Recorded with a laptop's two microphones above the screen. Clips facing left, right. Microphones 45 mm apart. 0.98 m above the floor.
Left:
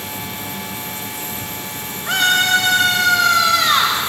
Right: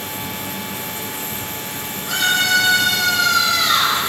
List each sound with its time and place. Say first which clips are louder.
0.0 s a machine running: right 1 dB; 65° right (ahead or behind), 3 m
2.1 s a scream: left 2 dB; 45° left (ahead or behind), 2.5 m